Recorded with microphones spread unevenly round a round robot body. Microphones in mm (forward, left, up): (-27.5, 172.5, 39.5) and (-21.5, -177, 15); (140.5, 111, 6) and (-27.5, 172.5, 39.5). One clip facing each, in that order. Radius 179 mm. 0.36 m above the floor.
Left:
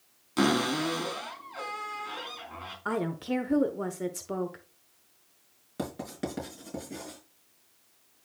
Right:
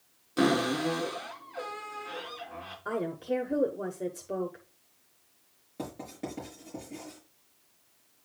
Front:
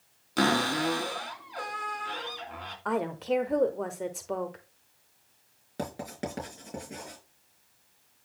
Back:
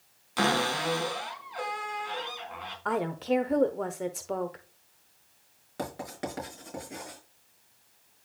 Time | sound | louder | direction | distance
0.4 | a cupboard door | even, front 2 dB | 20° left | 3 m
2.9 | a woman speaking | left 1 dB, back 1 dB | 50° left | 0.9 m
5.8 | writing | left 3 dB, even | 40° left | 4.5 m